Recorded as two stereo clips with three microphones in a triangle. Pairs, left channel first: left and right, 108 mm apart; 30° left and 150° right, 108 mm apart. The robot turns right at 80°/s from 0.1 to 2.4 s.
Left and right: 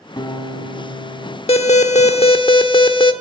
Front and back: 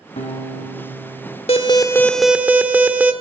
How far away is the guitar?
About 2 m.